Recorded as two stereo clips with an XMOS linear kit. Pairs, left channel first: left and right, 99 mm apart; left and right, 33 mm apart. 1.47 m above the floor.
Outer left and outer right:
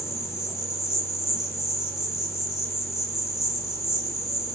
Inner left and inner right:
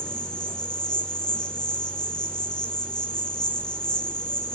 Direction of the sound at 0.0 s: 30° left (ahead or behind).